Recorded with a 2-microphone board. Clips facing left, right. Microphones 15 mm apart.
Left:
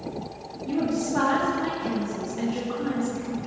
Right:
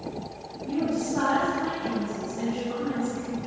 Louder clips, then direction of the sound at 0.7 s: Left 1 dB; 35° left (ahead or behind).